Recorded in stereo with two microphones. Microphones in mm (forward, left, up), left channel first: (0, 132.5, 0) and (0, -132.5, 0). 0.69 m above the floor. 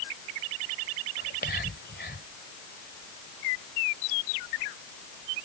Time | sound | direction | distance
1.2 | whispering | 40° left (ahead or behind) | ?